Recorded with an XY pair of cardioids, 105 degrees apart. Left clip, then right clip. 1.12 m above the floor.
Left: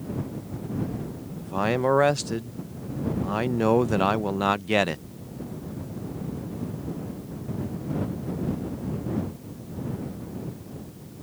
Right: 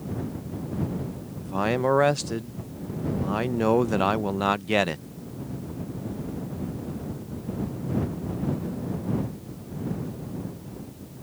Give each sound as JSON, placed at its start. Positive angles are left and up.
{"t": 1.4, "sound": "a man speaking", "azimuth_deg": 5}